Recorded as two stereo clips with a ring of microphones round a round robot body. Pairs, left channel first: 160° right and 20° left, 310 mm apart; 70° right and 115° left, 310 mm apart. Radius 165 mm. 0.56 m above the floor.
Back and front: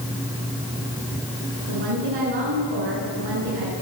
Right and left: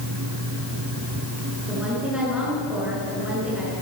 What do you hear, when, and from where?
1.7 s a woman speaking: 25° left, 9.5 m